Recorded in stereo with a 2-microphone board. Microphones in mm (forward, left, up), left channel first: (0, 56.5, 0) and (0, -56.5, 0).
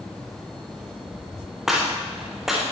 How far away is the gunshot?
About 9.5 m.